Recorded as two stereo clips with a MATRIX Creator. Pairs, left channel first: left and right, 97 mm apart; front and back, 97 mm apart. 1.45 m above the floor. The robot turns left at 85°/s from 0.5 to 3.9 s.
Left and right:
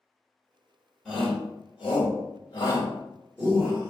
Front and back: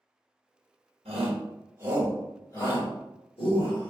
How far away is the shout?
About 1.5 m.